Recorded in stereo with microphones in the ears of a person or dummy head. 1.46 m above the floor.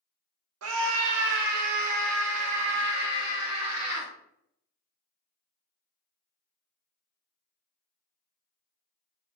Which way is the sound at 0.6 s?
90° right.